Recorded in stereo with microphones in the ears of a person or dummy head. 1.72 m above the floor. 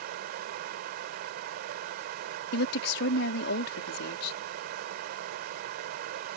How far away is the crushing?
No crushing in this recording.